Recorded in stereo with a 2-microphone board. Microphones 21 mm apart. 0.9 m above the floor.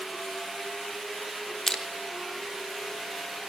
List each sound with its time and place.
1.7 s crushing: 15° left (ahead or behind), 3 m